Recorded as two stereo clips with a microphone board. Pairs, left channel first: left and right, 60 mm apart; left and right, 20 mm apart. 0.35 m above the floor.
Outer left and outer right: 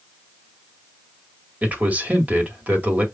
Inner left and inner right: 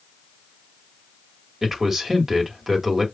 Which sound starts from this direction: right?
A man speaking, at 1.6 s.